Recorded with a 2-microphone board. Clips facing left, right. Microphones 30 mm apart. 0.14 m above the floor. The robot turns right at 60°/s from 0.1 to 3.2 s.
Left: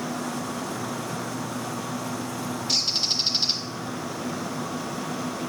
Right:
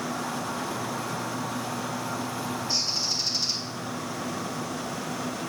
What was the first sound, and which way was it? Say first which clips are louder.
A bird: left 5 dB; 100° left.